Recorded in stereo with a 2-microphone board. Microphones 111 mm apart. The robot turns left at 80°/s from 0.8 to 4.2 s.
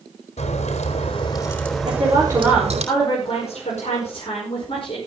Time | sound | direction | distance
0.4 | a crack | 85° left | 4 m
1.9 | a woman speaking | 120° right | 5 m